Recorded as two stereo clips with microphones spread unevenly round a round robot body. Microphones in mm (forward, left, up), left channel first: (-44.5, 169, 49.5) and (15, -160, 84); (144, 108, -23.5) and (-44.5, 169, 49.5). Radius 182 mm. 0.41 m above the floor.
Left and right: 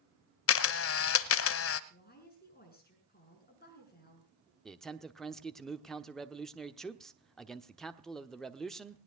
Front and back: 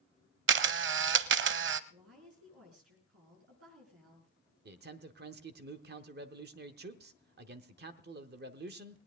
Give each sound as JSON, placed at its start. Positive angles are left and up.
{"t": 0.5, "sound": "a camera shutter", "azimuth_deg": 155, "distance_m": 0.5}
{"t": 1.9, "sound": "a woman speaking", "azimuth_deg": 160, "distance_m": 6.5}
{"t": 4.7, "sound": "a man speaking", "azimuth_deg": 175, "distance_m": 1.0}